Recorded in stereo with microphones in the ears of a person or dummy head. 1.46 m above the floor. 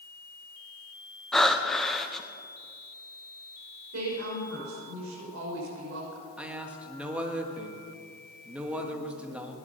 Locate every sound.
1.3 s breathing: 5° left (ahead or behind), 0.8 m
3.9 s a woman speaking: 85° right, 5.5 m
6.4 s a man speaking: 10° right (ahead or behind), 1.6 m